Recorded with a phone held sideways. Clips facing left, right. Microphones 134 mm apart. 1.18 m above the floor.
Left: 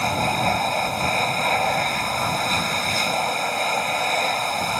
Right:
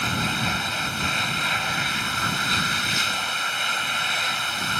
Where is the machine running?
45° left (ahead or behind).